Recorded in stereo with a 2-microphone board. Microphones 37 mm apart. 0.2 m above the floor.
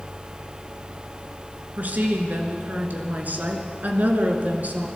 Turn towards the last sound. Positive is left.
turn(degrees=-50)  # may be behind; listen again after turning